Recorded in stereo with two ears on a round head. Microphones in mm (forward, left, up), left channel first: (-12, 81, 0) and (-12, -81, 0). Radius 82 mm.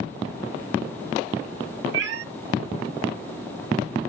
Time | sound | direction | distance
1.9 | a cat meowing | 65° right (ahead or behind) | 1.1 m